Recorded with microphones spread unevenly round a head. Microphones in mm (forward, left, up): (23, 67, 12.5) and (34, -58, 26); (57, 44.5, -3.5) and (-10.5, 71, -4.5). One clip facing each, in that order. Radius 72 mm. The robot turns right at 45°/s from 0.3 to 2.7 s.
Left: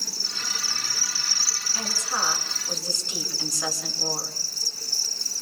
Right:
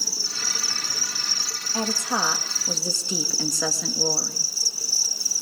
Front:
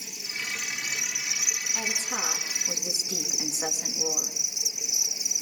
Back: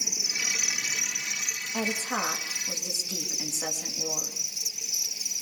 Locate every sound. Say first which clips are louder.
0.0 s an insect: right 2 dB, back 1 dB; 145° right, 0.8 m; by 5.4 s 35° right, 0.8 m
1.7 s a woman speaking: right 6 dB, back 5 dB; 150° right, 2.5 m; by 4.5 s 105° right, 2.5 m